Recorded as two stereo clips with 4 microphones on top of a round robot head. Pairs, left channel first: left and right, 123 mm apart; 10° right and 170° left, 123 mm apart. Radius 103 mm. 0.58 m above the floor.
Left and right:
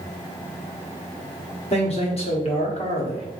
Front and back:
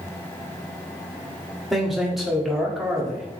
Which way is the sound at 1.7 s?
85° left.